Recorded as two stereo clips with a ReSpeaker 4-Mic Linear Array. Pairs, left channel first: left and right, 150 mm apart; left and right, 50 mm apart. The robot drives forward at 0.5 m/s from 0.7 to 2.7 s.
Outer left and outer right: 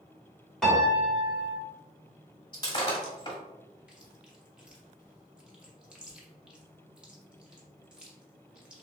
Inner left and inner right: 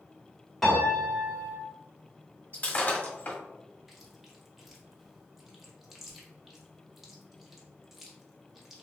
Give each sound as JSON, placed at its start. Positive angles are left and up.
{"t": 0.6, "sound": "a piano", "side_deg": 5, "distance_m": 1.6}
{"t": 2.5, "sound": "breaking glass", "side_deg": 30, "distance_m": 1.3}
{"t": 3.9, "sound": "chewing", "side_deg": -5, "distance_m": 1.0}